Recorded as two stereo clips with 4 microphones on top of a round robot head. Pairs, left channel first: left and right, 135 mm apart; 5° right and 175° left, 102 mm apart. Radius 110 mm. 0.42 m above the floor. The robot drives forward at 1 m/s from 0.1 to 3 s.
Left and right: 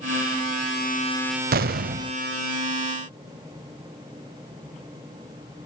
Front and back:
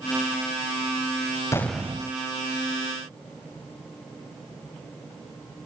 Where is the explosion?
75° right, 0.6 m; by 2.1 s 130° right, 0.8 m.